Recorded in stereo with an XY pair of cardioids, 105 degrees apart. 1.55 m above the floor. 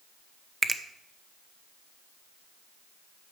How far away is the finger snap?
About 0.9 m.